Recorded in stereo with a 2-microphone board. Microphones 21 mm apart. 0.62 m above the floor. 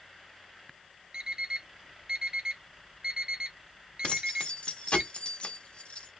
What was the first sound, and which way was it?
An alarm clock, 40° right (ahead or behind).